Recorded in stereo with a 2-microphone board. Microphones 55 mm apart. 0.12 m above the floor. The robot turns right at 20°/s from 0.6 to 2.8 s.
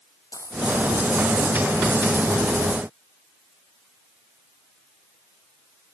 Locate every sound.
0.3 s a dropped coin: 80° left, 4 m